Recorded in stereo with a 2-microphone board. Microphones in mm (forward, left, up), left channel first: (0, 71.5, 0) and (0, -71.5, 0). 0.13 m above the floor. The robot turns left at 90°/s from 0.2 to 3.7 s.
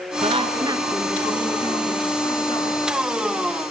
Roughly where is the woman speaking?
Right.